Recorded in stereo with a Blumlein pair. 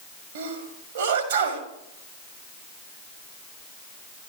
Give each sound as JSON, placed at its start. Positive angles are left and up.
{"t": 0.3, "sound": "a sneeze", "azimuth_deg": -60, "distance_m": 1.9}